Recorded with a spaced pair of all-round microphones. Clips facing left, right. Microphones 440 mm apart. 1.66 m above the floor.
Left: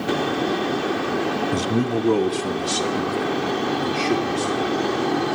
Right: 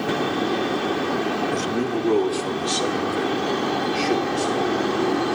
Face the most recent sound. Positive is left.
turn(degrees=35)  # may be behind; listen again after turning